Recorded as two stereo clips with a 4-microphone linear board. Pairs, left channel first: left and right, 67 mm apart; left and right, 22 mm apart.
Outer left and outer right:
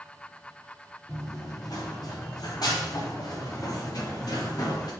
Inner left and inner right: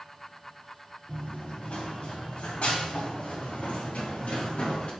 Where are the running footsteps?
75° left (ahead or behind), 2.5 m; by 4.9 s 80° left, 4.5 m.